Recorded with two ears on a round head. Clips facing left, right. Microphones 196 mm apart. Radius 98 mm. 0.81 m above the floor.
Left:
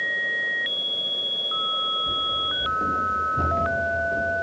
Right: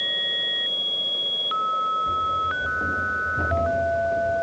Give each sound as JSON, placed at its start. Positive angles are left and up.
{"t": 2.1, "sound": "running footsteps", "side_deg": 5, "distance_m": 2.5}